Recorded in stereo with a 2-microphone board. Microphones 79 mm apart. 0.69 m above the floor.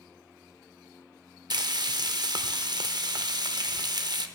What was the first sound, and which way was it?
Frying, 60° right (ahead or behind).